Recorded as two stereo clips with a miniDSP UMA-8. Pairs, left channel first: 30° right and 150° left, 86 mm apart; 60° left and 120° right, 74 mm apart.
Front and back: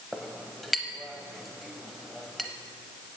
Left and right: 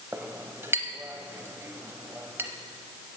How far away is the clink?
About 0.8 m.